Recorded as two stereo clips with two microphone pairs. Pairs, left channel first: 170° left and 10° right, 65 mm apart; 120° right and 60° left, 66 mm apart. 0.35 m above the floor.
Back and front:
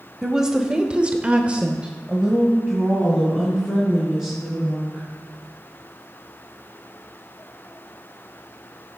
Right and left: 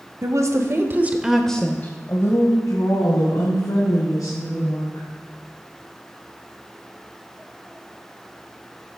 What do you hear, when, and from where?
0.2 s a woman speaking: 70° left, 1.7 m; by 5.0 s 95° right, 5 m